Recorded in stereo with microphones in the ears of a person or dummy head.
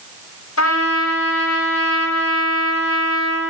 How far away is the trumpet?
About 6 m.